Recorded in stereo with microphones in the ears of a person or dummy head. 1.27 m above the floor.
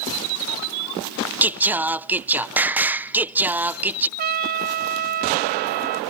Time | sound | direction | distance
1.4 | singing | 10° right (ahead or behind) | ?
4.2 | a trumpet | 45° right (ahead or behind) | ?